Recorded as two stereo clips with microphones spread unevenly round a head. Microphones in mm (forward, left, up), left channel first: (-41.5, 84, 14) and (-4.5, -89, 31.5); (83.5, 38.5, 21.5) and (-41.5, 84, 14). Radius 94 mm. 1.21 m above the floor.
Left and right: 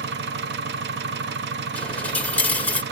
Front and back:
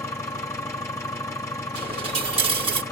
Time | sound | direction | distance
0.0 | an engine running | 95° right | 1.0 m
1.8 | a dropped coin | 175° right | 1.0 m